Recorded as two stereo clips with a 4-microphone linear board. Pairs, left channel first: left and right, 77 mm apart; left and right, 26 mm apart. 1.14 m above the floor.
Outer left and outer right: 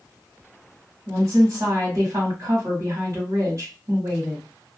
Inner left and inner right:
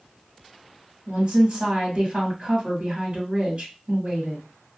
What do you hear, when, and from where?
1.1 s a woman speaking: 55° right (ahead or behind), 1.3 m